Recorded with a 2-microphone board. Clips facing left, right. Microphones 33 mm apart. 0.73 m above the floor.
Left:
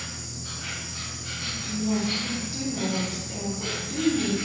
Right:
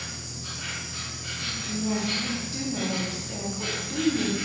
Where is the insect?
70° right (ahead or behind), 0.8 m.